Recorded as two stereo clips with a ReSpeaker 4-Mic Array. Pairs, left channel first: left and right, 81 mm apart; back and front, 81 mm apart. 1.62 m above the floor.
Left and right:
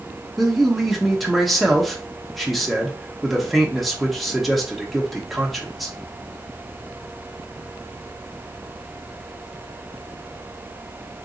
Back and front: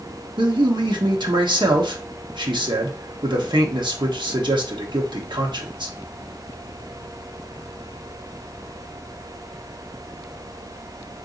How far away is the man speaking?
About 0.8 m.